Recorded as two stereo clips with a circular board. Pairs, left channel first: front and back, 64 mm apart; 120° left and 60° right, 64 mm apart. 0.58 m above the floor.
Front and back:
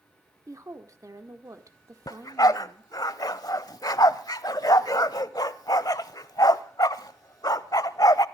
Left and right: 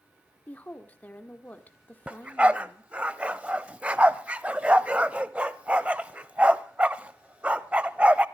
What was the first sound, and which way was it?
A woman speaking, 175° left.